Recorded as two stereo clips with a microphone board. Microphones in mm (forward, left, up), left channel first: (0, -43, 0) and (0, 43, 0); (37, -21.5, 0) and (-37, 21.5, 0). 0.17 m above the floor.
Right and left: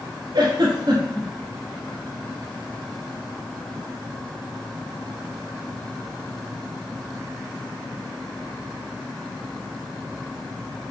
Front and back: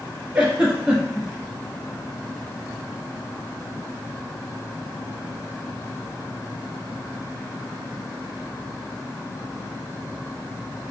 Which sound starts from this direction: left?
A giggle, at 0.3 s.